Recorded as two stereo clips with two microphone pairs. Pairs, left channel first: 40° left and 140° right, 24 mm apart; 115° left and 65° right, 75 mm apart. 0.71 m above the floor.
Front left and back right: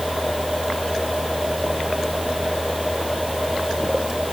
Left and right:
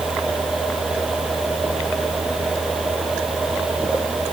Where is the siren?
No siren in this recording.